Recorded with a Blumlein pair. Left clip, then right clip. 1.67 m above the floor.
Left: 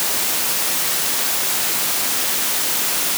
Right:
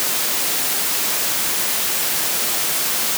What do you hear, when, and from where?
Only background noise.